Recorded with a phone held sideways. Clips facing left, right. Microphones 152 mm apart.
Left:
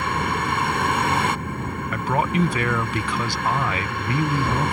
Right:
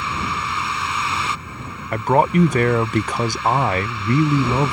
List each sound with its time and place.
0.0 s a vehicle: 55° left (ahead or behind)
1.9 s a man speaking: 45° right (ahead or behind)